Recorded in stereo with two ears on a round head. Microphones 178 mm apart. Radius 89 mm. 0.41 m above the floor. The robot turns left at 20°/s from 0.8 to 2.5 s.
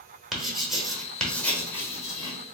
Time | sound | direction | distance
0.3 | writing | centre (ahead or behind) | 1.0 m